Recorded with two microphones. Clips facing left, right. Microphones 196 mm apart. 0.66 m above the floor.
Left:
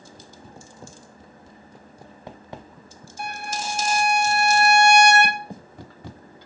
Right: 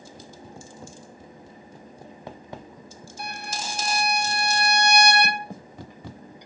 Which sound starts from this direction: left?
A violin, at 3.2 s.